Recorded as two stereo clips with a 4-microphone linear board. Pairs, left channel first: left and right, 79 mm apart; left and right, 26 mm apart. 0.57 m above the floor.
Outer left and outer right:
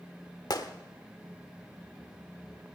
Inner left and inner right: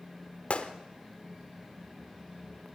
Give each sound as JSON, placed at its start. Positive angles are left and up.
{"t": 0.5, "sound": "a gunshot", "side_deg": 60, "distance_m": 1.2}